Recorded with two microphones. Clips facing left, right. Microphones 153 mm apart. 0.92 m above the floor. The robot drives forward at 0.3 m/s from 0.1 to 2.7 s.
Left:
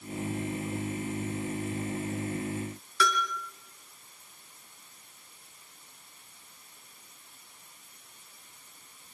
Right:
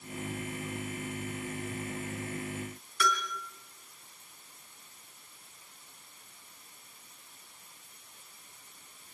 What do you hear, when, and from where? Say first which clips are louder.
3.0 s a bell: left 3 dB; 80° left, 6 m